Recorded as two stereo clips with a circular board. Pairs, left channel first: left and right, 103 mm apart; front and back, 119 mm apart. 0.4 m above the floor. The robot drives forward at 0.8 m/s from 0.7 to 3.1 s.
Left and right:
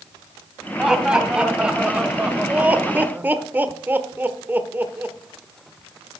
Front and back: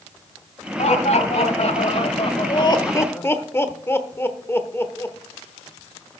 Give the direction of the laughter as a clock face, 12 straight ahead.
12 o'clock.